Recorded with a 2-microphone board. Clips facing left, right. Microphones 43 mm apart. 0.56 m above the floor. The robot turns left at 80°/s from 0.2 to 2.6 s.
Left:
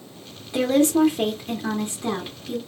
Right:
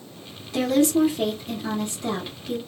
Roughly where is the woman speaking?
Behind left.